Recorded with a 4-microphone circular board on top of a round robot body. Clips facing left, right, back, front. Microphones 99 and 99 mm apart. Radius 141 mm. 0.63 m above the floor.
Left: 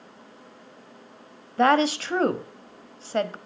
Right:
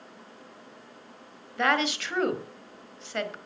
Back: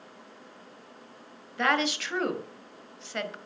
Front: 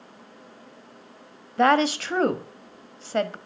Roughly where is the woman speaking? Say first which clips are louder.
Left 6 dB, front 8 dB; ahead left.